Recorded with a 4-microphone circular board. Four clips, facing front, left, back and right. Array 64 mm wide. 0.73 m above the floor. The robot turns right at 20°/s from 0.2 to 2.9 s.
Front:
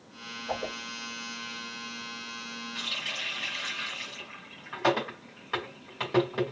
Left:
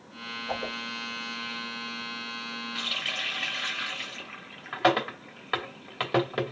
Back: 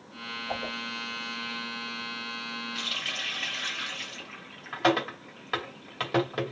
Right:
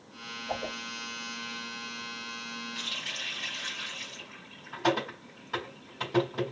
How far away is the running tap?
About 2.5 m.